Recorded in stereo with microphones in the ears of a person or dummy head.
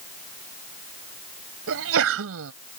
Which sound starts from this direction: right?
A sneeze, at 1.7 s.